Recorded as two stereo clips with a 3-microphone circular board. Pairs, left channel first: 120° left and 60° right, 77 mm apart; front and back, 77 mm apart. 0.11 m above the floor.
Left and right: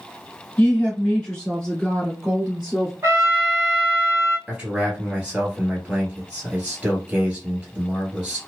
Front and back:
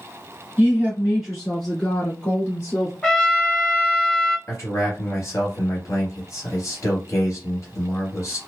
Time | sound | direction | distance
0.6 | a woman speaking | 165° left | 1.7 m
3.0 | a trumpet | 75° right | 1.2 m
4.5 | a man speaking | 10° left | 1.6 m